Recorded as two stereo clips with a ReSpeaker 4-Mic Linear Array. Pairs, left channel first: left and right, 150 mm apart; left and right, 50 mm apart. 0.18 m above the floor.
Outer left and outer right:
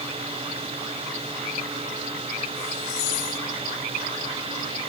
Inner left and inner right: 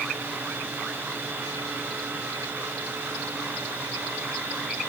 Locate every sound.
Only background noise.